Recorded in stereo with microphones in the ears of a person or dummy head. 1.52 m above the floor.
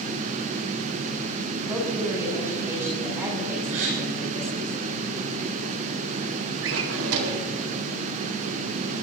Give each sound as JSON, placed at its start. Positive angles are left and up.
{"t": 1.6, "sound": "a woman speaking", "side_deg": -15, "distance_m": 9.0}
{"t": 3.7, "sound": "a gasp", "side_deg": -80, "distance_m": 7.0}
{"t": 6.6, "sound": "a drawer", "side_deg": -70, "distance_m": 2.0}